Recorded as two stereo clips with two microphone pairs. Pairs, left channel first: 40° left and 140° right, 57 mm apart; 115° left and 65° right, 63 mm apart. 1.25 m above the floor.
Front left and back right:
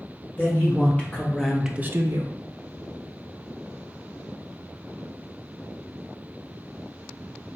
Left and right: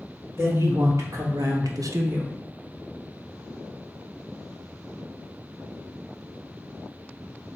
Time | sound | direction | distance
0.4 | a man speaking | 20° right | 2 m